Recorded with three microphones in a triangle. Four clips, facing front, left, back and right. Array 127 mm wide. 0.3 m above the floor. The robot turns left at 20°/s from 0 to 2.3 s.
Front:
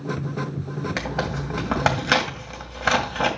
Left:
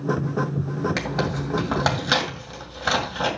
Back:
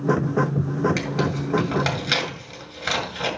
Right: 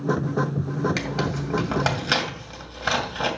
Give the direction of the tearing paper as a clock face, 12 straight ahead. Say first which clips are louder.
Left 1 dB, back 3 dB; 11 o'clock.